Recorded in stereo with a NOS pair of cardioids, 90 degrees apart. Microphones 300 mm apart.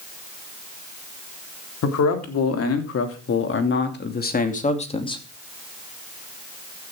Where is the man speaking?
60° left, 3.5 m; by 5.2 s 15° left, 2.5 m.